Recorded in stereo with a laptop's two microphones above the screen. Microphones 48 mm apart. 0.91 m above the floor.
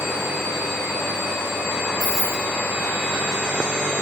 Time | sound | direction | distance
2.0 | keys jangling | 25° right (ahead or behind) | 3.5 m